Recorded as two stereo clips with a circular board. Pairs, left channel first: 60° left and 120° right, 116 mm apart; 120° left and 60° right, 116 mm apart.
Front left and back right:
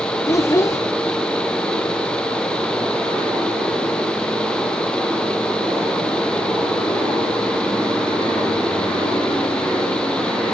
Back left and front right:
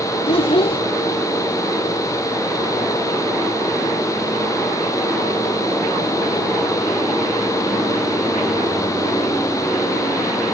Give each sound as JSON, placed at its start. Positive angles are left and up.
{"t": 0.3, "sound": "a child speaking", "azimuth_deg": 115, "distance_m": 0.8}